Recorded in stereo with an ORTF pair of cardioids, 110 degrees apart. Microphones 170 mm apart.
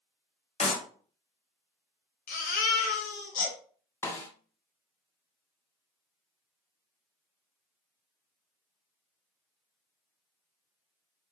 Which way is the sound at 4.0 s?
15° left.